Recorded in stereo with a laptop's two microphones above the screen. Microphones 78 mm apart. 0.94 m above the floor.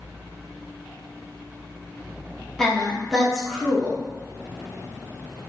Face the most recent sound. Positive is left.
turn(degrees=5)  # may be behind; listen again after turning